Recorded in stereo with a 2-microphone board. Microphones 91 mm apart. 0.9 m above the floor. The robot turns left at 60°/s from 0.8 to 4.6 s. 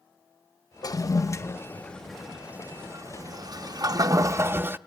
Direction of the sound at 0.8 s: 45° left (ahead or behind).